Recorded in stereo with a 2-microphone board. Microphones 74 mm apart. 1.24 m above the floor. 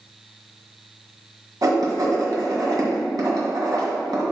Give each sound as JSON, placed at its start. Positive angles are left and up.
{"t": 1.6, "sound": "writing", "side_deg": -60, "distance_m": 1.9}